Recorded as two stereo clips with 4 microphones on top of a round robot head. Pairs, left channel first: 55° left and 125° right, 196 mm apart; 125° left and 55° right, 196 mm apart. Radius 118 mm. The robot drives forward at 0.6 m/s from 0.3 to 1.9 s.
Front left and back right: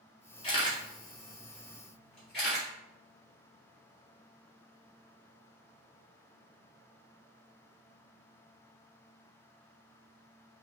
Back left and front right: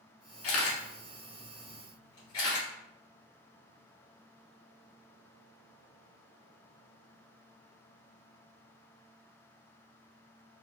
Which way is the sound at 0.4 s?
115° left.